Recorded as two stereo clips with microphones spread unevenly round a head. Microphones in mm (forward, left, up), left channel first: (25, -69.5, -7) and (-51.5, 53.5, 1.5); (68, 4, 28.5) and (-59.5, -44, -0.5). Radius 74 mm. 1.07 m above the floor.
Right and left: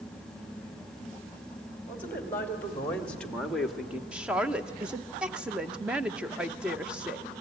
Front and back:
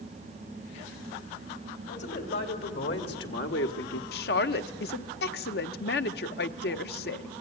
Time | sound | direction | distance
1.9 | a man speaking | 20° left | 3.5 m
4.1 | a woman speaking | 35° left | 0.8 m